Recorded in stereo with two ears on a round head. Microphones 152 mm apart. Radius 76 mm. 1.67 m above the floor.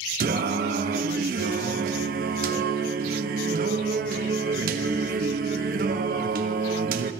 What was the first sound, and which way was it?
Singing, 60° right (ahead or behind).